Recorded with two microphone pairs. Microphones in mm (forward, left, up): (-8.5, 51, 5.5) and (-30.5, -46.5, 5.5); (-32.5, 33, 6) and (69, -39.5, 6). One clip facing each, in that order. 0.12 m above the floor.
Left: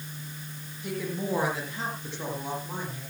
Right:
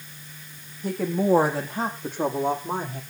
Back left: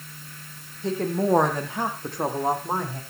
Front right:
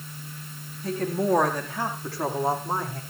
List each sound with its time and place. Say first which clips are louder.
0.8 s a woman speaking: right 8 dB, back left 1 dB; 150° right, 5.5 m; by 3.0 s 145° right, 6 m